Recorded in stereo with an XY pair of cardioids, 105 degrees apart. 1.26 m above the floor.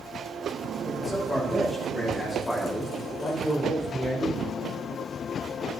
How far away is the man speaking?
About 7.5 m.